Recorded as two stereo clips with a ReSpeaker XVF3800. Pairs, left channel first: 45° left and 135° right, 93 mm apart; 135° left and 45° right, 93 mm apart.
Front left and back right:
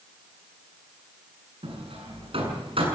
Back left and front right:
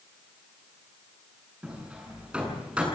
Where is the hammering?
125° right, 8 m.